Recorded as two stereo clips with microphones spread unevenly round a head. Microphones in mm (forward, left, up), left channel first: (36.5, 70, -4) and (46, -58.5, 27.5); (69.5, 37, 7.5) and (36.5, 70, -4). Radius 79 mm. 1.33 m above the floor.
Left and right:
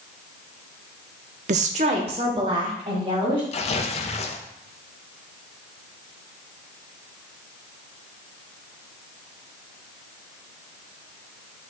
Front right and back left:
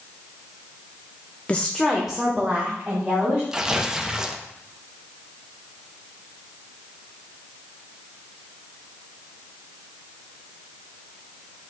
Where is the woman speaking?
125° right, 0.6 m; by 3.4 s 150° right, 3 m.